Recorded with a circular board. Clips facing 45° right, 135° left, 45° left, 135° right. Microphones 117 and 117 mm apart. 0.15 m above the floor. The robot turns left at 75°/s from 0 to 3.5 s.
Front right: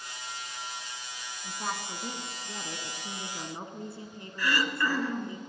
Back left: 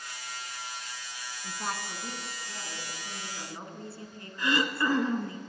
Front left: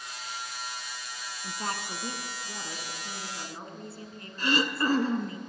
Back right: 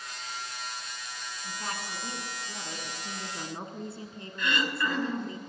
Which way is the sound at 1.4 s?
60° left.